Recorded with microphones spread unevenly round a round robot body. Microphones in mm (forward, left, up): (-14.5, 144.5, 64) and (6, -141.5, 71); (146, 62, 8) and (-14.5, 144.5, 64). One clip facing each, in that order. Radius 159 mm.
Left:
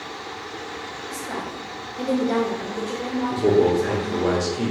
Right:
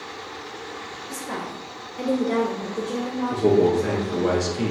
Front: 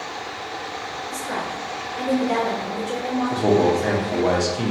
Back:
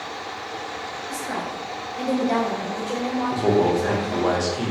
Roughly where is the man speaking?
Ahead.